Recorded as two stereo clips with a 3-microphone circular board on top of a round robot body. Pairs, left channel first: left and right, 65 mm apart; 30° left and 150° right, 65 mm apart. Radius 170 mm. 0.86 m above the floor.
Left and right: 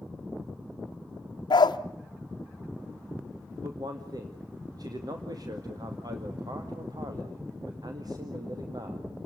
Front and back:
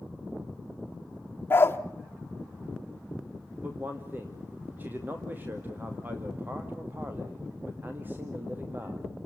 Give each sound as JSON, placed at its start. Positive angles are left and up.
{"t": 1.5, "sound": "a dog barking", "azimuth_deg": 90, "distance_m": 0.9}
{"t": 3.6, "sound": "a man speaking", "azimuth_deg": -90, "distance_m": 2.5}